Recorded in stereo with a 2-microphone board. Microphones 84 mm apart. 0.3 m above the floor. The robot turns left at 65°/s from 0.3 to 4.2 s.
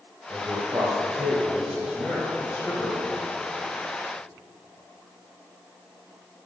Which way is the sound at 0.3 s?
60° right.